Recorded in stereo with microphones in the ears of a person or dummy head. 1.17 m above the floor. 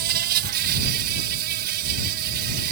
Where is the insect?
55° right (ahead or behind).